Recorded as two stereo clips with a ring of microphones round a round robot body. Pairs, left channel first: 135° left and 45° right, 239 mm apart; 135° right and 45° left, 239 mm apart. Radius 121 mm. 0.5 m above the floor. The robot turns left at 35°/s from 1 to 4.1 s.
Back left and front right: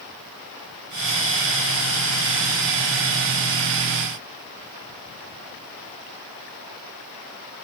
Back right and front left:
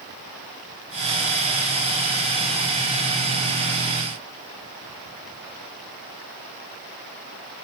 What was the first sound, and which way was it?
Only background noise.